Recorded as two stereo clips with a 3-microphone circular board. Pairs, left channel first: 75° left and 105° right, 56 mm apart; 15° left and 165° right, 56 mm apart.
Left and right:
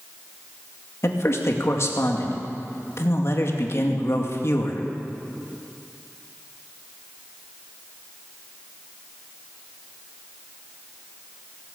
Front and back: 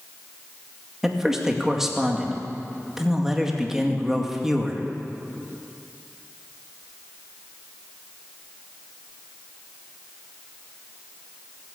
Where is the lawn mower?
I don't hear a lawn mower.